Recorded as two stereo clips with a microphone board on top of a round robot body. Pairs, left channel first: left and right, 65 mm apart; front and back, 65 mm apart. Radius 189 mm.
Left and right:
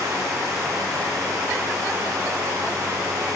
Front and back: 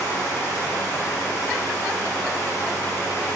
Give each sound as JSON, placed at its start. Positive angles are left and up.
{"t": 0.0, "sound": "running water", "azimuth_deg": -50, "distance_m": 1.5}